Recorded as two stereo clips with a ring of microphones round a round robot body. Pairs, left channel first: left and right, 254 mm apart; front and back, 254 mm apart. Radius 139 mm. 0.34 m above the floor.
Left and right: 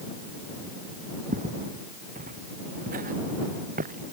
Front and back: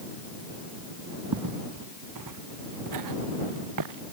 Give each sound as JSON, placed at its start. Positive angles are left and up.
{"t": 1.3, "sound": "footsteps", "azimuth_deg": -155}